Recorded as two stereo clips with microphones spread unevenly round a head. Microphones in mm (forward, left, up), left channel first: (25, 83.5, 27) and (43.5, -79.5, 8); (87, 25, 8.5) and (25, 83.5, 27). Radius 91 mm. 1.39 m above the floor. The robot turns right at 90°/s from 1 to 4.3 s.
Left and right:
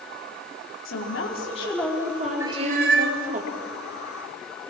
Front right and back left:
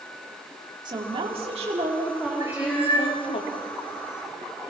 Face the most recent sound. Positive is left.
turn(degrees=5)